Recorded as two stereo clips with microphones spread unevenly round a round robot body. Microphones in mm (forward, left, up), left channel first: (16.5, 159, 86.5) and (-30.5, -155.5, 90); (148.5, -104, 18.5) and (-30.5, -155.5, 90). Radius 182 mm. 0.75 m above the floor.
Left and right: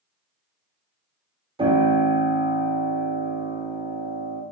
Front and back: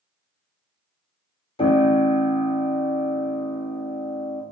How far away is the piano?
About 2.0 m.